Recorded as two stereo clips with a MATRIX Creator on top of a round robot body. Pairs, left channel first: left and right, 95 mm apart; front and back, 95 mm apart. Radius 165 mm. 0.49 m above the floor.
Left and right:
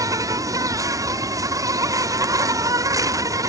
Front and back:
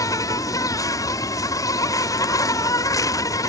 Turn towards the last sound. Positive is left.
turn(degrees=-45)